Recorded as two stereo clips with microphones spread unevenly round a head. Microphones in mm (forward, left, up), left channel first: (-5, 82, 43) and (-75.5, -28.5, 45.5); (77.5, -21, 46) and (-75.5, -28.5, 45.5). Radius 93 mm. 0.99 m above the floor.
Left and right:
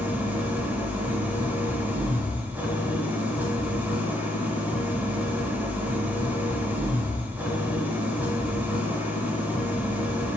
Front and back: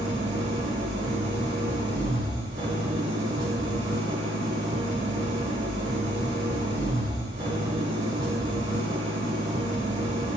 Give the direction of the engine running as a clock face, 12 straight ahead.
6 o'clock.